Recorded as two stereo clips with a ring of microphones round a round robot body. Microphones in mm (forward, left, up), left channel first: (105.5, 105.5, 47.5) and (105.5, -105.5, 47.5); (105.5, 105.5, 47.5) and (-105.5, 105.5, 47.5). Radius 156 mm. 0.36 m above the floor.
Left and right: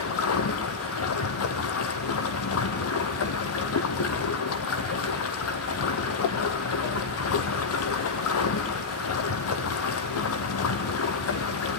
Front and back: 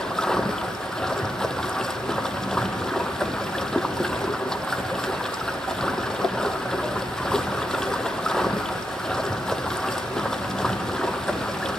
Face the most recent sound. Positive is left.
turn(degrees=85)